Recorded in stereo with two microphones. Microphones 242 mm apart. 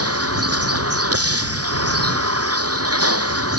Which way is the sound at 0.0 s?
75° right (ahead or behind).